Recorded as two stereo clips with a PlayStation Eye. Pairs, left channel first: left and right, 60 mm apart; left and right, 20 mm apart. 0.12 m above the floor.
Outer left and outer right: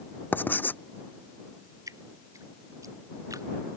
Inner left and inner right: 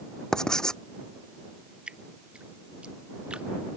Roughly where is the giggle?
I don't hear a giggle.